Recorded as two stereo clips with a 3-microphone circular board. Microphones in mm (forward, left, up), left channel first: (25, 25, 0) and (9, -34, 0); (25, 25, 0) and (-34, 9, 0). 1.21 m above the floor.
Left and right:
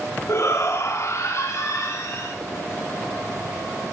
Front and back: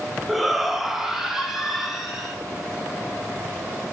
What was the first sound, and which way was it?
A shout, 105° left.